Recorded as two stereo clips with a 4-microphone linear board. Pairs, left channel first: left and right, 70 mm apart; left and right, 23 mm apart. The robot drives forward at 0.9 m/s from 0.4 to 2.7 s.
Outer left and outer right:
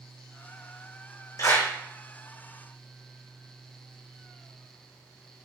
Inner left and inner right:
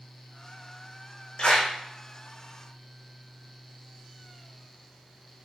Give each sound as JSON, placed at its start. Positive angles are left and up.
{"t": 1.4, "sound": "a clap", "side_deg": 50, "distance_m": 4.5}